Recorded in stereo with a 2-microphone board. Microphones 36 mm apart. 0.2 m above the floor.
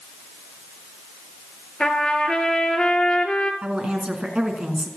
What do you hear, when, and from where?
1.8 s a trumpet: 20° left (ahead or behind), 1.9 m
3.6 s a woman speaking: 30° right (ahead or behind), 2.5 m